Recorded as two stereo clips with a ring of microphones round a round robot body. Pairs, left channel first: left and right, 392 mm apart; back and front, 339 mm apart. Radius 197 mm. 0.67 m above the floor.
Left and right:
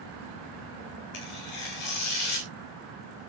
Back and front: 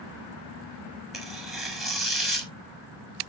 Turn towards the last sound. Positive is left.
turn(degrees=90)